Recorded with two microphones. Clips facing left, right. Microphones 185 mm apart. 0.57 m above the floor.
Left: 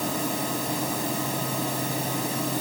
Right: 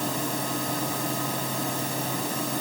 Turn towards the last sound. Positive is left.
No sound to turn to.